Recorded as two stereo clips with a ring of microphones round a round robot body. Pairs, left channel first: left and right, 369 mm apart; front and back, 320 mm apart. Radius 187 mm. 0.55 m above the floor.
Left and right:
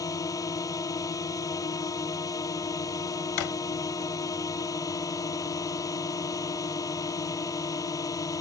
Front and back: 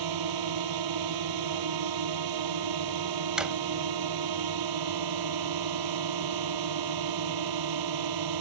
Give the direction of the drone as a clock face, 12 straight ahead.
6 o'clock.